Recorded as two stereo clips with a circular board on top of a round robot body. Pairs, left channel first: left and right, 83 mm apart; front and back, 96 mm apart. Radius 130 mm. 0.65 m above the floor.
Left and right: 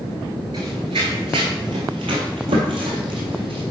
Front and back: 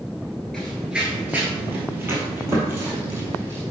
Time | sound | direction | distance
0.5 | running footsteps | 85° right | 0.6 m